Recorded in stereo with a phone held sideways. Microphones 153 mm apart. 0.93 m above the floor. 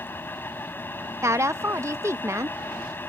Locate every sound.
0.0 s a fan: 15° left (ahead or behind)
1.2 s a woman speaking: 20° right (ahead or behind)